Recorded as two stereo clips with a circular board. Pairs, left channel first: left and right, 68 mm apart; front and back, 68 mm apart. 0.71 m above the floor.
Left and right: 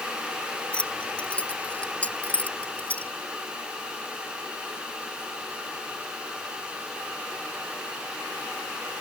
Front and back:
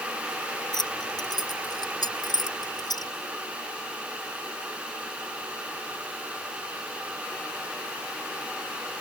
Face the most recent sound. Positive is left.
turn(degrees=20)